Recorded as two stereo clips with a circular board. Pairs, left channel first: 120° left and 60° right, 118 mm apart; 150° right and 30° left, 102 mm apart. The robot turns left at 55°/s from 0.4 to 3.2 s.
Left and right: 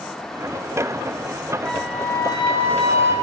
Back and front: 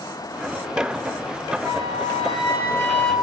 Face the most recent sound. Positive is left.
turn(degrees=125)